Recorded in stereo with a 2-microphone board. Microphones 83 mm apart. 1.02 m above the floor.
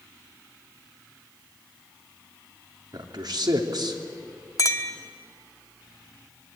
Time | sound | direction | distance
2.9 | a man speaking | 65° right (ahead or behind) | 3 m
4.6 | a clink | 50° left (ahead or behind) | 1.6 m